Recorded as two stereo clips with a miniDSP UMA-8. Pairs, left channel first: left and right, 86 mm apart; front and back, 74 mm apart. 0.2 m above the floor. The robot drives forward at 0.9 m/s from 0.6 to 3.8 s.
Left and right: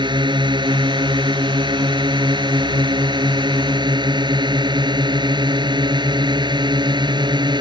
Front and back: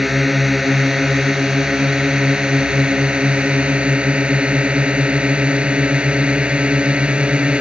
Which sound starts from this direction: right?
A drone, at 0.0 s.